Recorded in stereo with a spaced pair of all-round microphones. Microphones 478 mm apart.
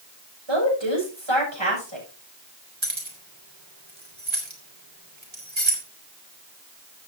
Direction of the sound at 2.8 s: 70° right (ahead or behind).